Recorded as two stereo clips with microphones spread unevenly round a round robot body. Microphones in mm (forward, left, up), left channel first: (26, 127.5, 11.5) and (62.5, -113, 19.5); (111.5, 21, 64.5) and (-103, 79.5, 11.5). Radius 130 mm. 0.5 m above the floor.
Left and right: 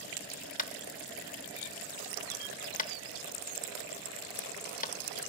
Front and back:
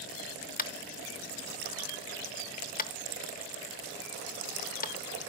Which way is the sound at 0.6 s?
40° left.